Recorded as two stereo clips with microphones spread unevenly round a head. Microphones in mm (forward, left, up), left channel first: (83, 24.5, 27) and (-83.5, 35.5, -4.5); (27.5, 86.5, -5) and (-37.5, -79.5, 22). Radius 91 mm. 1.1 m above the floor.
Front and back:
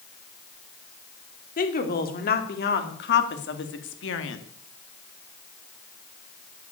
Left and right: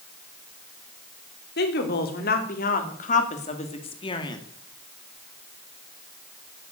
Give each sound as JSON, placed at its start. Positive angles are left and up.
{"t": 1.6, "sound": "a woman speaking", "azimuth_deg": 35, "distance_m": 3.0}